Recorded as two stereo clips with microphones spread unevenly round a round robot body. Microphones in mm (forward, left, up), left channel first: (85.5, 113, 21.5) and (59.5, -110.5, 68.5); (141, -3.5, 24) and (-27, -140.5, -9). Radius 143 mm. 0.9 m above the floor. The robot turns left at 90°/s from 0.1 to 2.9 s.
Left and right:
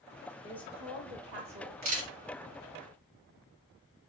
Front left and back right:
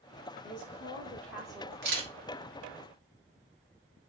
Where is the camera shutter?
150° right, 1.2 m; by 2.1 s 175° right, 1.2 m.